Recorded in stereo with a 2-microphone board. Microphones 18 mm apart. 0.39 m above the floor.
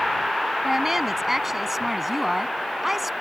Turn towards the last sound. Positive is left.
turn(degrees=-15)  # may be behind; listen again after turning